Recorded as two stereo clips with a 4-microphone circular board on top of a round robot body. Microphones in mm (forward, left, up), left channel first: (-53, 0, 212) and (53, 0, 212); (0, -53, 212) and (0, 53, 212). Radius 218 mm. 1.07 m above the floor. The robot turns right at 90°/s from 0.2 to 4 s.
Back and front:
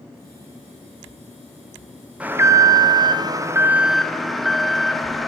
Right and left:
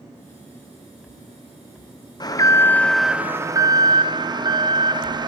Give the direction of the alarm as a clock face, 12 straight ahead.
2 o'clock.